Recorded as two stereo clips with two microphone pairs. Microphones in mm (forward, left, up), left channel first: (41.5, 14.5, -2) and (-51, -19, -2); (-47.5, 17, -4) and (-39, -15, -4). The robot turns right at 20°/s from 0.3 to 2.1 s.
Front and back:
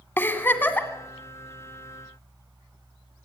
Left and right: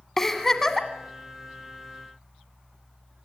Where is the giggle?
45° left, 1.7 m; by 0.9 s 55° left, 1.7 m.